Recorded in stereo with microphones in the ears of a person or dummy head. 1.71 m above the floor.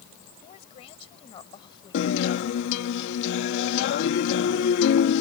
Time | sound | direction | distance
0.4 | a woman speaking | 40° left (ahead or behind) | ?
1.9 | a guitar | 65° left (ahead or behind) | ?